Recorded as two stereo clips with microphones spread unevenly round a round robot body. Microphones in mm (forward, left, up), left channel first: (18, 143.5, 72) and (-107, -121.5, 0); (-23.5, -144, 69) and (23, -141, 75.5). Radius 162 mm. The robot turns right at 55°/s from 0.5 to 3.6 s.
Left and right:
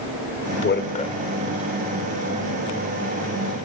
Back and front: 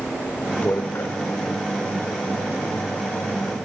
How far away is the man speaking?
About 2.0 m.